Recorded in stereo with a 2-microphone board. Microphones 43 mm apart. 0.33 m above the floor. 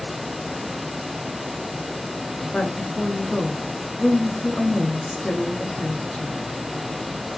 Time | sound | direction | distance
2.5 | a woman speaking | 20° left (ahead or behind) | 4 m